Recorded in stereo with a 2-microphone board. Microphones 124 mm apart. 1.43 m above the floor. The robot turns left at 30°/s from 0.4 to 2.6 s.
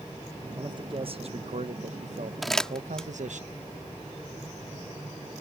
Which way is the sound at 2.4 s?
Centre (ahead or behind).